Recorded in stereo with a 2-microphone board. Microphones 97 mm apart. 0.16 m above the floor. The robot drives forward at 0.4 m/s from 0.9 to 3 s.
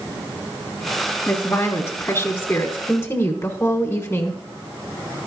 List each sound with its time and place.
1.3 s a woman speaking: 25° left (ahead or behind), 1.2 m